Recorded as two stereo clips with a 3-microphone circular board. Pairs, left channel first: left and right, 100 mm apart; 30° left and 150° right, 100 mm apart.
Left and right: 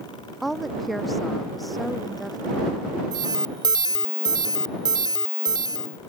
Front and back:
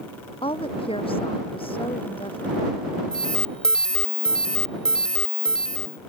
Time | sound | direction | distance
0.4 | a woman speaking | straight ahead | ?
3.1 | an alarm | 50° right | ?